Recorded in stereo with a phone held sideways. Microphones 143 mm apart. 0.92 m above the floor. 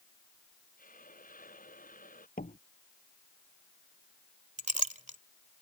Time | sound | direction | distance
0.8 | a hiss | 80° left | ?
2.4 | a door slam | 90° left | ?
4.6 | a clink | 60° right (ahead or behind) | ?